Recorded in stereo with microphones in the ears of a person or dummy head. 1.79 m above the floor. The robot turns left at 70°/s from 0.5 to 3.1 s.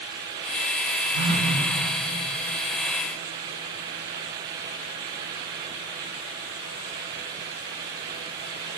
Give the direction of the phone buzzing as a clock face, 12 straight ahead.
4 o'clock.